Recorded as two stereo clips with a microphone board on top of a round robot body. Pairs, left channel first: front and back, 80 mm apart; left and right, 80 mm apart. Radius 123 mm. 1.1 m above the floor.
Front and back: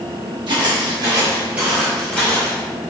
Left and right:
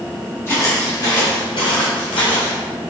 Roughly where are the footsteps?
Behind left.